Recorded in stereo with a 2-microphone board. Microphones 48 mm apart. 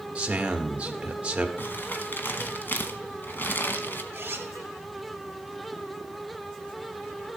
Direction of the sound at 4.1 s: 40° right (ahead or behind).